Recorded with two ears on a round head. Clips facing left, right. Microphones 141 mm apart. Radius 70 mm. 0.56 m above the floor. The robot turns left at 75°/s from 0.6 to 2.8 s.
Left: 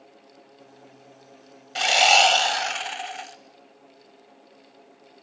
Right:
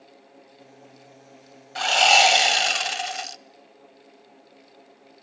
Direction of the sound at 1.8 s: 30° left.